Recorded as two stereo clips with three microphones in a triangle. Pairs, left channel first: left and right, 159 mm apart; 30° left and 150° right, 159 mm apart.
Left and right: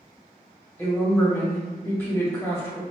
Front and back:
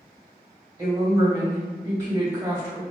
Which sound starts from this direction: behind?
A woman speaking, at 0.8 s.